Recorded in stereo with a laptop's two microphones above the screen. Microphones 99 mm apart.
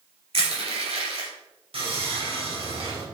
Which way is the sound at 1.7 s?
75° right (ahead or behind).